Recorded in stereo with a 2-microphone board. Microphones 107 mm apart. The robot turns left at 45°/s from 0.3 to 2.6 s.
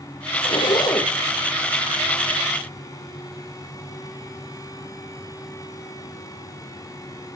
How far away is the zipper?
About 2.5 m.